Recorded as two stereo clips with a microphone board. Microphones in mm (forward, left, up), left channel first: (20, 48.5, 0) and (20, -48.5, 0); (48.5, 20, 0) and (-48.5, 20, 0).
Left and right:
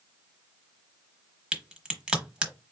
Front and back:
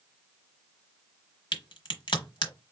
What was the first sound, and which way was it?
A crack, 10° right.